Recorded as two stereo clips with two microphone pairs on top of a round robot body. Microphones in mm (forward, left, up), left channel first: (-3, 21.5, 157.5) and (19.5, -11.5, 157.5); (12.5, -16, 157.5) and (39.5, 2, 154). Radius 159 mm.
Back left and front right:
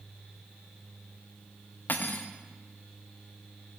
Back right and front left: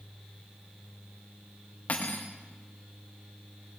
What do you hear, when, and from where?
1.9 s cutlery clinking: 170° left, 0.6 m